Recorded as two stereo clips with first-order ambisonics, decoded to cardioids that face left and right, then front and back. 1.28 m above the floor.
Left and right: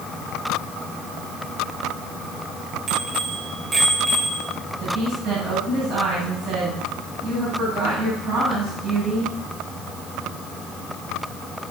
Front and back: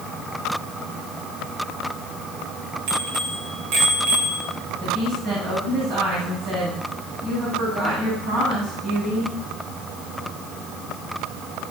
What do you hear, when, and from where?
2.9 s a bicycle bell: 155° right, 4 m; by 4.5 s 165° right, 3.5 m
4.8 s a woman speaking: 140° right, 8 m